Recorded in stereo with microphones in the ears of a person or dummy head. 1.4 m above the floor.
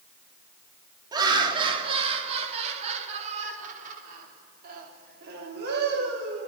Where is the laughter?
30° right (ahead or behind), 3.5 m; by 6.5 s 75° right (ahead or behind), 4 m.